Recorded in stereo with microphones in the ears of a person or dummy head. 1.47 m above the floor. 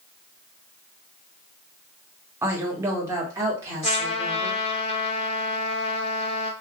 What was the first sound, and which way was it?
A woman speaking, 15° right (ahead or behind).